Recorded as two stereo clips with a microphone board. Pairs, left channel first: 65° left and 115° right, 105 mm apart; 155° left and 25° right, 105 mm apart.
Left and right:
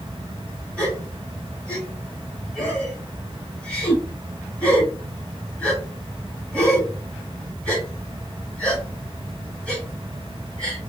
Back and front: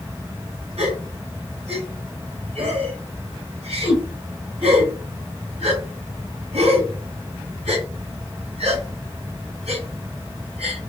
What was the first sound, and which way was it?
A gasp, 10° right.